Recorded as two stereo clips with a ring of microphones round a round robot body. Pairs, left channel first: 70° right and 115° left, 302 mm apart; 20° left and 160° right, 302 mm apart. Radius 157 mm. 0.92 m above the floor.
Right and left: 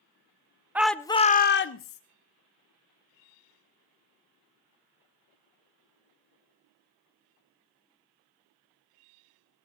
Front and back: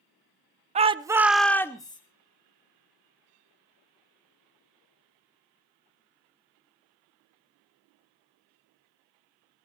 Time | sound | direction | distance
0.8 | a shout | 170° right | 0.7 m